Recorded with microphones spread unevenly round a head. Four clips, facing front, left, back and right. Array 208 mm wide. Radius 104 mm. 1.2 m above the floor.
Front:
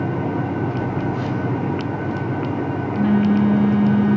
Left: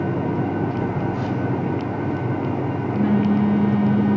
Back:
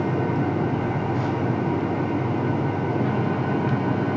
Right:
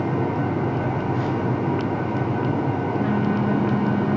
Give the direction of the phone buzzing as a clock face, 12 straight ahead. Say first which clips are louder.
Even, front 2 dB; 10 o'clock.